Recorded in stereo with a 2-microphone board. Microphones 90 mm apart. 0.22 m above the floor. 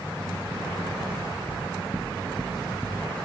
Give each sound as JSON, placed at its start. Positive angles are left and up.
{"t": 1.5, "sound": "knocking", "side_deg": 20, "distance_m": 0.6}